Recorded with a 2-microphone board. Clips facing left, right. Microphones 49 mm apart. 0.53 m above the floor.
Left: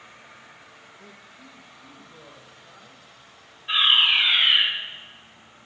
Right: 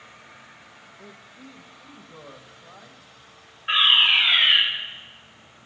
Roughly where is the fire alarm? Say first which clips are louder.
Right 1 dB; right.